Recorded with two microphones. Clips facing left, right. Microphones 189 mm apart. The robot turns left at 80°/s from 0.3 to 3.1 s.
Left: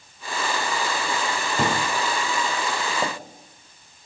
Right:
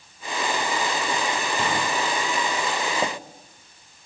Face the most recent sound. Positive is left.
turn(degrees=-10)  # may be behind; listen again after turning